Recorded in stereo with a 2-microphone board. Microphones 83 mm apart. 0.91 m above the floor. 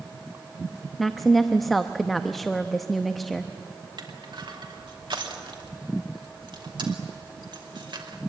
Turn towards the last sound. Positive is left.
turn(degrees=-70)  # may be behind; listen again after turning